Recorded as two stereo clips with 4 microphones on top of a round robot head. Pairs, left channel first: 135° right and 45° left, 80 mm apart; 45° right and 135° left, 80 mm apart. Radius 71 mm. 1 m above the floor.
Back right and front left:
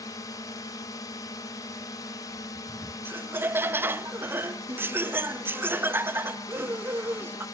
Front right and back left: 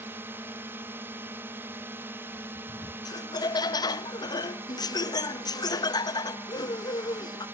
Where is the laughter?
15° right.